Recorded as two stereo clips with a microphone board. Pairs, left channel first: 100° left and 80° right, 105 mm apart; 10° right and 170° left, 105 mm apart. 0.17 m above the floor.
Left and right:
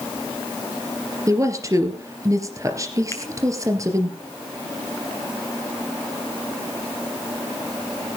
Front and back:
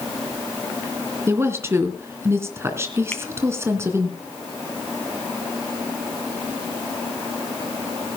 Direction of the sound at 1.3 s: 130° right.